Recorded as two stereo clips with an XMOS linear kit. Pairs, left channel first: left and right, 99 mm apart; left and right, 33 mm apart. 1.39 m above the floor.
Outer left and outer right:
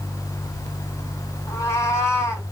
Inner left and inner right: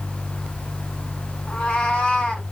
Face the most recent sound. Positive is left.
turn(degrees=30)  # may be behind; listen again after turning